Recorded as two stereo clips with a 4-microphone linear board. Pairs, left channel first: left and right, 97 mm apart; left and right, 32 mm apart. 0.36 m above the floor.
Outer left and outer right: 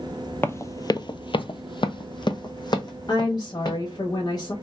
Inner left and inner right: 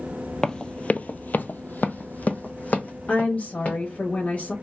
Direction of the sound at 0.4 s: 25° left (ahead or behind).